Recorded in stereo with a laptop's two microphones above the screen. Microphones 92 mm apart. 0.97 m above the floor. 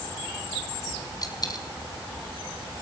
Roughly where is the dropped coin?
Left.